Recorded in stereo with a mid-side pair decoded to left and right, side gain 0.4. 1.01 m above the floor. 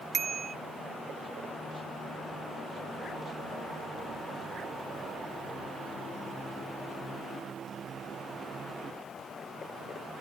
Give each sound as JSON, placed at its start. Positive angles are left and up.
{"t": 0.1, "sound": "a bicycle bell", "azimuth_deg": -40}